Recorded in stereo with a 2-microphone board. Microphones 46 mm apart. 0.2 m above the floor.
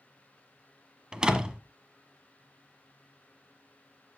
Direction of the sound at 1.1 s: 20° right (ahead or behind).